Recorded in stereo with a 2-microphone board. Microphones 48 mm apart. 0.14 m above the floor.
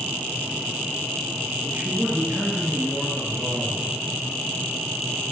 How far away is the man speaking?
About 2.5 m.